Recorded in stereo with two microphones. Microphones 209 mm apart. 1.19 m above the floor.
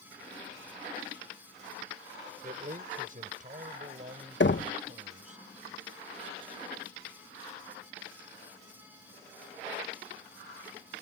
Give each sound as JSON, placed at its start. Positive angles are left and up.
{"t": 2.4, "sound": "a man speaking", "side_deg": -40}
{"t": 4.4, "sound": "knocking", "side_deg": 60}